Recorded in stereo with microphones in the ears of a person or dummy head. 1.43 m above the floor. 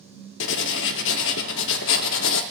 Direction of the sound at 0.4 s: 70° left (ahead or behind).